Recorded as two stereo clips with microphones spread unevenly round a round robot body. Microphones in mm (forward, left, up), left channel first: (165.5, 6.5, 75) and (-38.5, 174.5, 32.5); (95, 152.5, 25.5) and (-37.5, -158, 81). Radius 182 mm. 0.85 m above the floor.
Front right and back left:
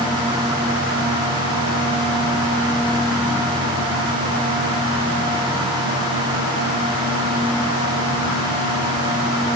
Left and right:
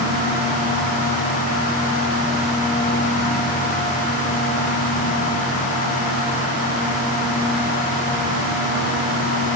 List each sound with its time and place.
Only background noise.